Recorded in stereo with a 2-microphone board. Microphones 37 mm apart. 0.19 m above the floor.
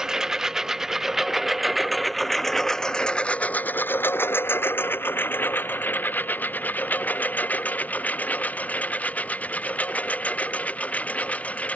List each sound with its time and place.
0.0 s a lawn mower: 15° right (ahead or behind); by 11.8 s 40° left (ahead or behind)